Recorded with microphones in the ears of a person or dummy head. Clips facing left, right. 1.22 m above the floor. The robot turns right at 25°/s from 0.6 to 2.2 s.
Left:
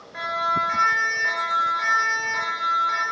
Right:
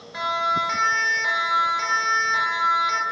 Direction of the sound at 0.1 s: 60° right (ahead or behind).